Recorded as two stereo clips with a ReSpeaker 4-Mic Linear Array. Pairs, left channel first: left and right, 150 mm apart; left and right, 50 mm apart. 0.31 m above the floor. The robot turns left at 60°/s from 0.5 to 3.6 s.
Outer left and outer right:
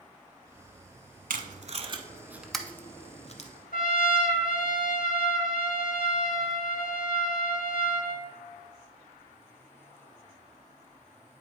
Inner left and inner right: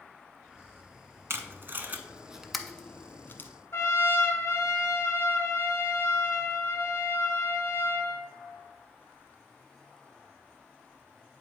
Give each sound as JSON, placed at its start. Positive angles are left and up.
{"t": 1.3, "sound": "tape being pulled", "side_deg": -75, "distance_m": 0.6}
{"t": 3.7, "sound": "a trumpet", "side_deg": 70, "distance_m": 0.7}